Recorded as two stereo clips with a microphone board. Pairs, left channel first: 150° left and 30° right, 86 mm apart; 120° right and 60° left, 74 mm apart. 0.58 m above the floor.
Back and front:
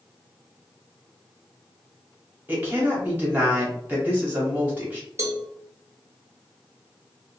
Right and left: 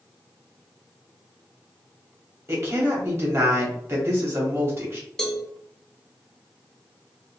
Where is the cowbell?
40° right, 0.6 m.